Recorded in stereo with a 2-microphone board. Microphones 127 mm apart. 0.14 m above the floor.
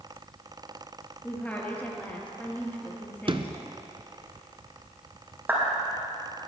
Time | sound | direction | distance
1.2 | a woman speaking | 15° left (ahead or behind) | 3.5 m
3.3 | a sliding door | 45° right (ahead or behind) | 0.7 m
5.5 | a clap | 15° right (ahead or behind) | 4.5 m